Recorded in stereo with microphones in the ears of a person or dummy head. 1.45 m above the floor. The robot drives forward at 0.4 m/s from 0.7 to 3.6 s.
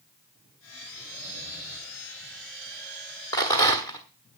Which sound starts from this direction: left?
Snoring, at 1.0 s.